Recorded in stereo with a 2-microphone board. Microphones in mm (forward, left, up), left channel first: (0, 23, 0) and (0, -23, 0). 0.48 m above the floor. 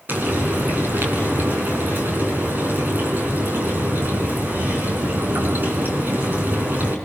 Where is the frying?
45° right (ahead or behind), 6.5 m.